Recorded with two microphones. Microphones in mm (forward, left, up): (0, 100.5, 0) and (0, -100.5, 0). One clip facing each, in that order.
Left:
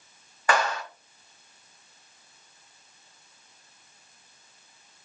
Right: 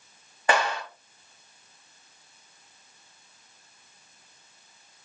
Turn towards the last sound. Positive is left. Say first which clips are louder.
# right 1 dB
turn(degrees=-25)  # may be behind; listen again after turning